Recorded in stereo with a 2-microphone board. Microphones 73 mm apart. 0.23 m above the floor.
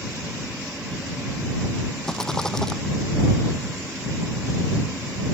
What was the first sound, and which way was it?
A rattle, 5° left (ahead or behind).